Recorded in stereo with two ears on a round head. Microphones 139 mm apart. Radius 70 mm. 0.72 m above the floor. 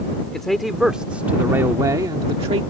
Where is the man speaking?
5° left (ahead or behind); by 2.6 s 40° right (ahead or behind).